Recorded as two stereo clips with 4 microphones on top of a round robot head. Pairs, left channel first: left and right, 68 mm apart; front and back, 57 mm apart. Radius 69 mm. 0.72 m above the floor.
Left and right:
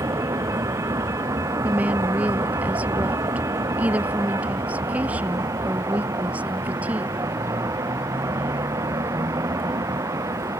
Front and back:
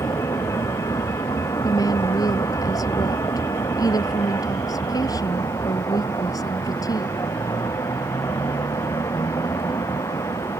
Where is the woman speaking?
20° right.